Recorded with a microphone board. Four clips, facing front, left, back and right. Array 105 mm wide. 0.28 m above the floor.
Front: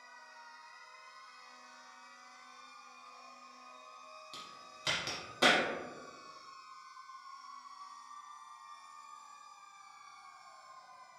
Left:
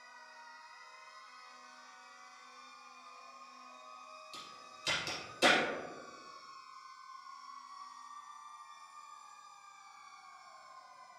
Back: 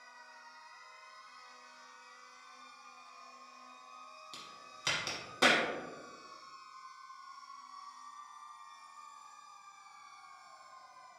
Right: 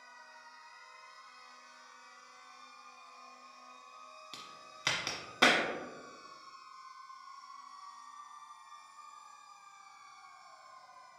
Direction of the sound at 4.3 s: 100° right.